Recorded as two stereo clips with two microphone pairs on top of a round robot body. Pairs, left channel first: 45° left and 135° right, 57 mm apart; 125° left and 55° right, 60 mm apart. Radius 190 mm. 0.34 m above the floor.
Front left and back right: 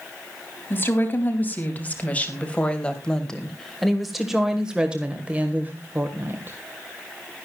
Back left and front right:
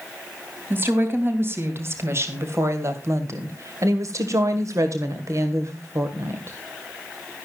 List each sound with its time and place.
0.7 s a woman speaking: 5° right, 3 m; by 6.6 s 90° right, 2 m